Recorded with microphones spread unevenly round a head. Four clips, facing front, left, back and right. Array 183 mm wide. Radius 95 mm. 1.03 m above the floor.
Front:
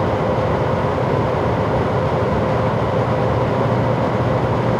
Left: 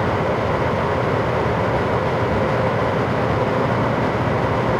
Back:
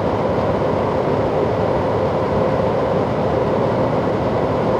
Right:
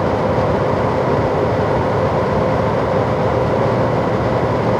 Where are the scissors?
I don't hear scissors.